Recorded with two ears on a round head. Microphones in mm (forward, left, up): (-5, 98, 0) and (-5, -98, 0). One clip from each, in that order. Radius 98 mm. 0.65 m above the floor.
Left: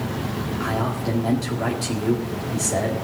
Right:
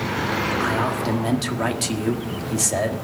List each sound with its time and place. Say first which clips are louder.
0.6 s a man speaking: right 3 dB; 40° right (ahead or behind), 1.6 m